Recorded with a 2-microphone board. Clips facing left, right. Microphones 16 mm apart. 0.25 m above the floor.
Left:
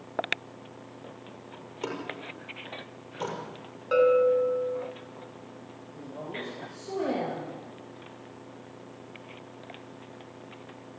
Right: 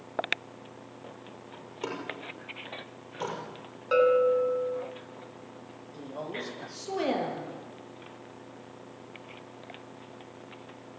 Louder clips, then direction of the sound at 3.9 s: Left 1 dB; 10° right (ahead or behind).